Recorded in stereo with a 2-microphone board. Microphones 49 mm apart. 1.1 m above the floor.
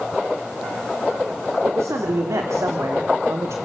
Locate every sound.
1.6 s a man speaking: 80° right, 3.5 m